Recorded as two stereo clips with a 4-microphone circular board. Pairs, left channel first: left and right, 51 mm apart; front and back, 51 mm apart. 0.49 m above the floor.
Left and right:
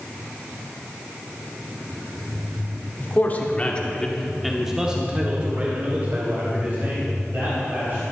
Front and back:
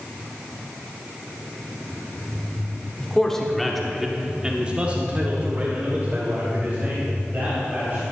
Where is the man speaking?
70° left, 1.6 m; by 8.0 s 130° right, 3.5 m.